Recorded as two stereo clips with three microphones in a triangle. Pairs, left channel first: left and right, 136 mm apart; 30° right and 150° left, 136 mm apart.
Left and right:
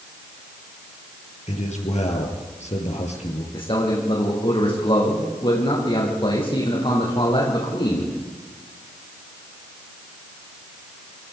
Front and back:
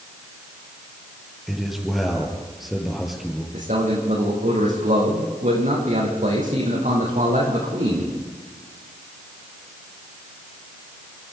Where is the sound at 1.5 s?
60° left, 5.5 m.